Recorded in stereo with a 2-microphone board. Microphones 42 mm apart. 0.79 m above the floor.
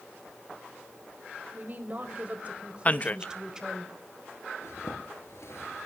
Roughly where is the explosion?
No explosion in this recording.